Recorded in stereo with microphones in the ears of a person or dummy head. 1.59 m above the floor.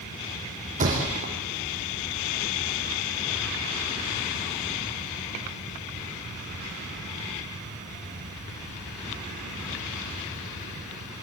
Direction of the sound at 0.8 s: 40° right (ahead or behind).